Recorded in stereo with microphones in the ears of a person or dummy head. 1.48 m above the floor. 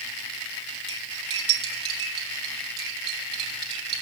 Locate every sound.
0.9 s cutlery clinking: 30° right (ahead or behind), 2.5 m